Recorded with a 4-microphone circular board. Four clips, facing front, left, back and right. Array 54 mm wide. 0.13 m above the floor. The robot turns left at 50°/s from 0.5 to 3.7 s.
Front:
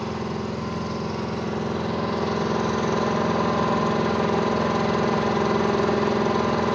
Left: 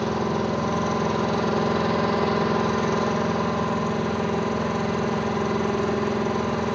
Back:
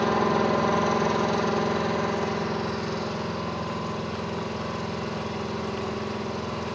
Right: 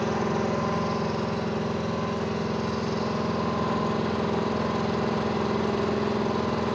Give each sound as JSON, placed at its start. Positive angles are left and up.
{"t": 0.0, "sound": "an engine running", "azimuth_deg": 160, "distance_m": 3.5}